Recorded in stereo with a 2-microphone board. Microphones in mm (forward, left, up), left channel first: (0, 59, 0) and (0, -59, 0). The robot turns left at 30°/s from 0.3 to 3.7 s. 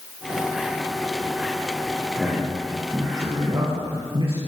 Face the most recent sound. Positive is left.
turn(degrees=-50)  # may be behind; listen again after turning